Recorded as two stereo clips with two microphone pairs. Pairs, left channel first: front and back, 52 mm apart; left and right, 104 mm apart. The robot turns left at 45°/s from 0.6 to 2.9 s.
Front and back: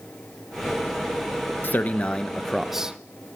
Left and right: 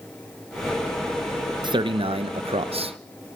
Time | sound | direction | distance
1.6 | a man speaking | 50° right | 0.7 m